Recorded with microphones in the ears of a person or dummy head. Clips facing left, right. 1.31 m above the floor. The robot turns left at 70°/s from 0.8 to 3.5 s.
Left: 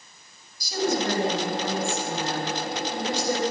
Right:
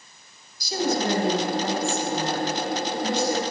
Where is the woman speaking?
55° right, 8.5 m; by 3.4 s 120° left, 8.5 m.